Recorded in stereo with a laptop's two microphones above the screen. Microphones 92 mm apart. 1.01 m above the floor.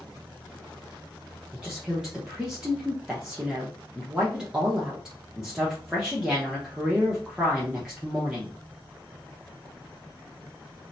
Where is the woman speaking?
10° right (ahead or behind), 0.8 m.